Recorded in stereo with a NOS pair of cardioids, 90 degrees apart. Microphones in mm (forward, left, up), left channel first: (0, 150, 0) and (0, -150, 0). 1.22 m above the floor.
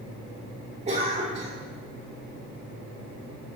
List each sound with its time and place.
0.9 s a cough: 20° right, 3 m